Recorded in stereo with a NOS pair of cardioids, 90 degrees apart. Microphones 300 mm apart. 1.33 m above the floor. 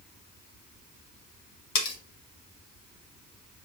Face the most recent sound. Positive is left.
turn(degrees=70)